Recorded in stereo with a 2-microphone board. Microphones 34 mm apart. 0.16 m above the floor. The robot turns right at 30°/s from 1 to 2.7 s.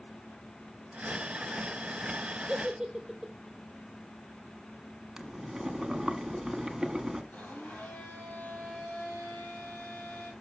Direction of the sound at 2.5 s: 15° right (ahead or behind).